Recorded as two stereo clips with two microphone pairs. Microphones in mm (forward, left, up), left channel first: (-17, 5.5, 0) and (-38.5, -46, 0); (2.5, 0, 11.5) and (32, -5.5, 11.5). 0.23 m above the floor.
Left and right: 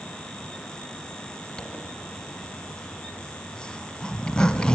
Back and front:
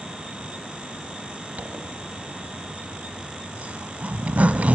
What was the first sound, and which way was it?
A zipper, 10° right.